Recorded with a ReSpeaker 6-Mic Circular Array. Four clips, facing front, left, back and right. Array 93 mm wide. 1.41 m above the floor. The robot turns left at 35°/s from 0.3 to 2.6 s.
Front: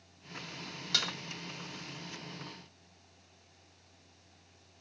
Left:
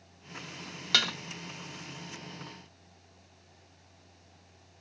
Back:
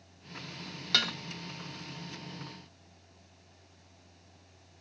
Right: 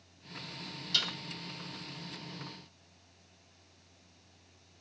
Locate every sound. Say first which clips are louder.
0.9 s dishes clattering: left 8 dB, back 5 dB; 115° left, 1.3 m; by 1.1 s 105° left, 1.3 m